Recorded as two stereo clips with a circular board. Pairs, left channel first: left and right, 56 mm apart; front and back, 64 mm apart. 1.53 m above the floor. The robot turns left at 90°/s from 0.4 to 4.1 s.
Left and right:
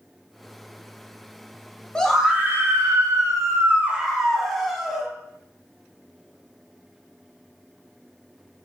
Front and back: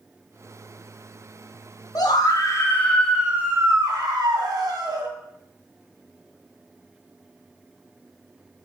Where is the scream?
15° left, 0.9 m; by 5.1 s straight behind, 0.9 m.